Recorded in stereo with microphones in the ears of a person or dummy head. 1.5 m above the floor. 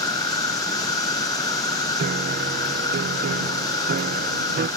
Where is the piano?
40° right (ahead or behind).